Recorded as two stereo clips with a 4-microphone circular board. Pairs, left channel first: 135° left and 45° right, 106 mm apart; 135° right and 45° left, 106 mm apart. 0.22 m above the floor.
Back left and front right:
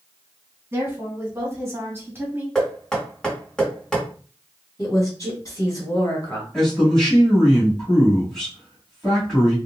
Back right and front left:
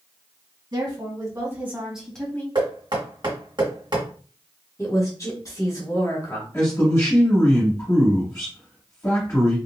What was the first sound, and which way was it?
A woman speaking, 10° left.